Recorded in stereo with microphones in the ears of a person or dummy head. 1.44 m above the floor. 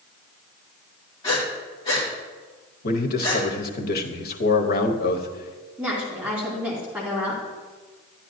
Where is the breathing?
20° left (ahead or behind), 2.5 m.